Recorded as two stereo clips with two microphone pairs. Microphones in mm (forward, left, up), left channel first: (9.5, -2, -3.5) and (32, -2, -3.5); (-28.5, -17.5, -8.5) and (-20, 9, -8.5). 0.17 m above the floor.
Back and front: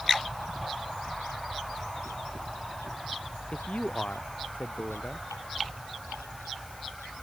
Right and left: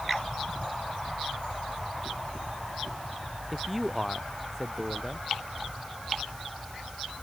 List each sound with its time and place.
3.5 s a man speaking: 160° left